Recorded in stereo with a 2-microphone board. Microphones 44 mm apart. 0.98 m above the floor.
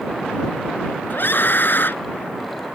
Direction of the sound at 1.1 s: 55° left (ahead or behind).